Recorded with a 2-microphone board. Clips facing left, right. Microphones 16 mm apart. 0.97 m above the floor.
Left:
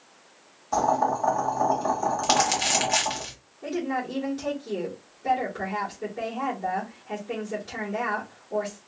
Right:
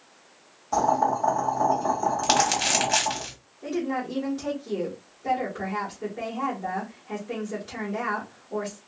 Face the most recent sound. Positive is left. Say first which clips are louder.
# even
turn(degrees=25)  # may be behind; listen again after turning